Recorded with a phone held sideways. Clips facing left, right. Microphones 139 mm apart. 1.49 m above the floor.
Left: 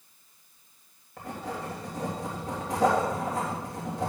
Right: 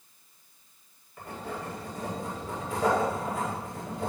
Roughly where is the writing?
Left.